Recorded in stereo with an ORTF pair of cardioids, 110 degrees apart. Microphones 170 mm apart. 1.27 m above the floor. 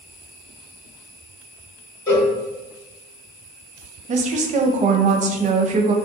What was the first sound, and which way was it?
A cowbell, 15° left.